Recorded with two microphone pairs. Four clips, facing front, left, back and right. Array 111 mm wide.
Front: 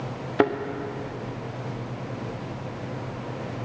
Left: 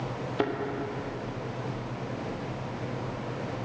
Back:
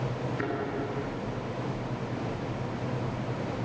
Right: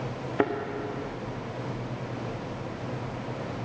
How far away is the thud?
About 1.5 m.